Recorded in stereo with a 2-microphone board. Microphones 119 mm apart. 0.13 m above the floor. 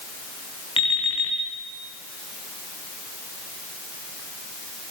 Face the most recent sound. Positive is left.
turn(degrees=45)  # may be behind; listen again after turning